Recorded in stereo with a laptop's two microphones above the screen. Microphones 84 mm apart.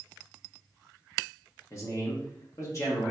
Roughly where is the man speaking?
Left.